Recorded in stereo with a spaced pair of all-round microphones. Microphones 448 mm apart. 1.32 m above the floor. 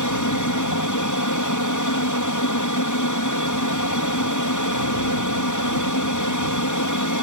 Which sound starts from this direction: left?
An aircraft, at 0.0 s.